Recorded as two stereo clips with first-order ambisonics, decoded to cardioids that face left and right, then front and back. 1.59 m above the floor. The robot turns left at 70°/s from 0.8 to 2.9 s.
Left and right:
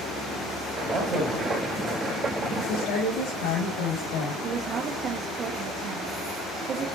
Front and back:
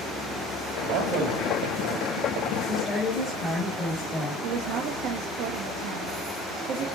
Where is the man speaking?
135° right, 2.5 m; by 1.5 s 175° left, 2.5 m.